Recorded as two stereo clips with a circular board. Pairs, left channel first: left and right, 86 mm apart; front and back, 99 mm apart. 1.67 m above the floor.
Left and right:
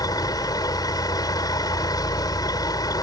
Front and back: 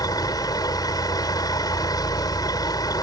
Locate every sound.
0.0 s a vehicle: 50° left